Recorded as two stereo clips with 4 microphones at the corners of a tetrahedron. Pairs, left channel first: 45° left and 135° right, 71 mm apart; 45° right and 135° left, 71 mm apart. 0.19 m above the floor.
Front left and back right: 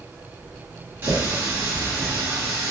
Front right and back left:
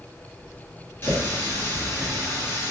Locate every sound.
1.0 s a running tap: 85° right, 1.7 m